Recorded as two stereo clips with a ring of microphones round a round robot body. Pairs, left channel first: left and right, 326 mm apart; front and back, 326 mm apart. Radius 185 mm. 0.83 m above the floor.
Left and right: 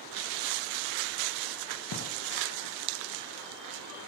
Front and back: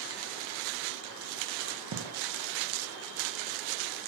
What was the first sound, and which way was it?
A gunshot, 130° left.